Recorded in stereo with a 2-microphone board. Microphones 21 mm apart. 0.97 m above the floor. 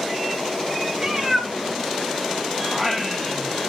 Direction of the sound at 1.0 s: 30° right (ahead or behind).